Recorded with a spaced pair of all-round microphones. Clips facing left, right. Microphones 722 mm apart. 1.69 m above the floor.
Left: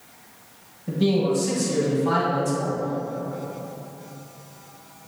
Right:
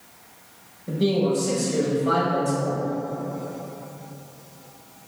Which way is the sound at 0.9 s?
30° left (ahead or behind).